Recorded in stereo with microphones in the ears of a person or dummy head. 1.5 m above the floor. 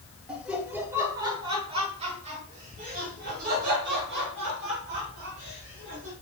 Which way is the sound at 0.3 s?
5° right (ahead or behind).